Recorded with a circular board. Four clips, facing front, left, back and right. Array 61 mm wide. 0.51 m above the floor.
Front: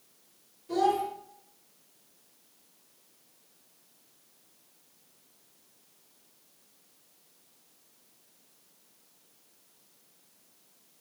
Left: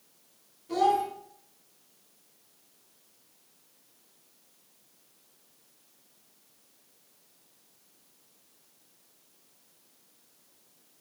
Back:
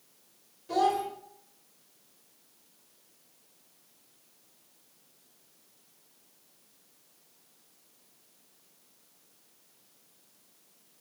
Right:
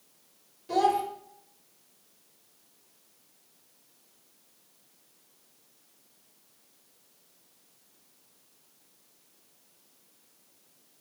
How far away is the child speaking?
About 1.4 m.